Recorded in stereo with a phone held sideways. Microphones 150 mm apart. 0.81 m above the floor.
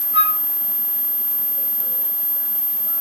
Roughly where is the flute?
Centre.